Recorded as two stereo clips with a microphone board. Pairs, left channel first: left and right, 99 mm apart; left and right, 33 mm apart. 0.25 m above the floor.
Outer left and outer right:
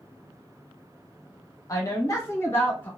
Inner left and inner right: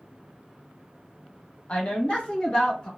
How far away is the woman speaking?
About 1.2 m.